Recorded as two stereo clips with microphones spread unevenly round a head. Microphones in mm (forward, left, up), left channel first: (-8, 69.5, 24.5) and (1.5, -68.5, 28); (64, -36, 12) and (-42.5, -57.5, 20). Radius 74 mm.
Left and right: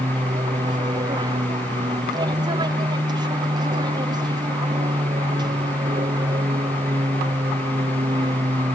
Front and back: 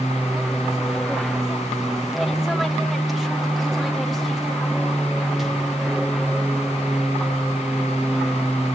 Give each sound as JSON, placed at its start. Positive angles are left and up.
{"t": 0.0, "sound": "an aircraft", "azimuth_deg": -75}